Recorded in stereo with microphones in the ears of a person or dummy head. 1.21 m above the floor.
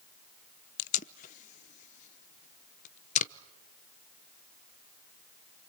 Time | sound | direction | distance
0.8 | tape being pulled | 40° left (ahead or behind) | 0.6 m